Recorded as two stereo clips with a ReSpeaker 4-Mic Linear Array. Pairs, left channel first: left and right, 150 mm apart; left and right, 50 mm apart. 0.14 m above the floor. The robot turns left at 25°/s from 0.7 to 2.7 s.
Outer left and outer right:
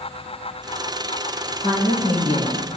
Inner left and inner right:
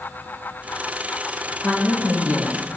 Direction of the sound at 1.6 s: 55° left (ahead or behind).